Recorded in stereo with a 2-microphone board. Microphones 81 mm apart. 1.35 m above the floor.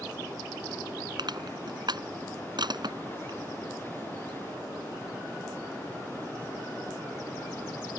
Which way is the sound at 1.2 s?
60° right (ahead or behind).